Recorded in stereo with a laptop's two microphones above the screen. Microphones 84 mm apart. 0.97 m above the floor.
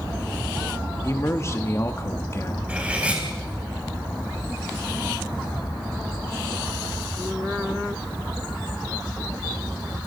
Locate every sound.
1.0 s a man speaking: 35° left (ahead or behind), 1.9 m
2.7 s cutlery clinking: 15° right (ahead or behind), 4 m